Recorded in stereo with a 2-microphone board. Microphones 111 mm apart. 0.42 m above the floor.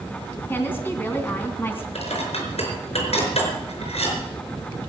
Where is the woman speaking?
20° left (ahead or behind), 3 m.